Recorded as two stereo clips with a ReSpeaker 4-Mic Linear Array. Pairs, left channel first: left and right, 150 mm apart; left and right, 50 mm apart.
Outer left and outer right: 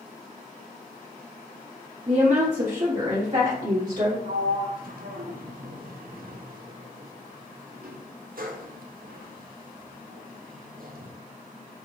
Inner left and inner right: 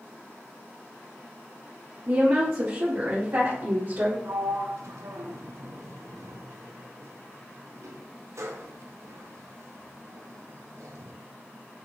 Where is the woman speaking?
50° right (ahead or behind), 0.8 m; by 4.2 s 60° right (ahead or behind), 2.0 m.